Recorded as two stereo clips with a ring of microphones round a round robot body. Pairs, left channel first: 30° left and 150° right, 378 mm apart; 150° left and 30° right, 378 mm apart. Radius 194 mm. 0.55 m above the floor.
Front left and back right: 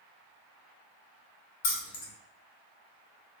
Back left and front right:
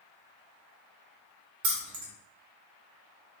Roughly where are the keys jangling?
Ahead.